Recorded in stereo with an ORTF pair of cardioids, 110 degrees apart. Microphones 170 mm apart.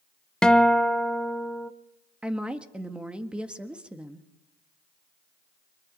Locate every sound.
0.4 s a guitar: 5° left, 0.8 m
2.2 s a woman speaking: 5° right, 1.7 m